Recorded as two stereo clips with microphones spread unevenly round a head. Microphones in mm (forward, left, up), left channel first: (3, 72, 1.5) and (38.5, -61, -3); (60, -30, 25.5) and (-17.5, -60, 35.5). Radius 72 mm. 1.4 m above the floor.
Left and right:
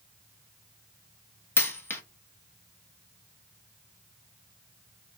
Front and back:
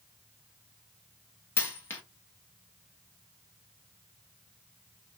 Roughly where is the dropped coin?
Left.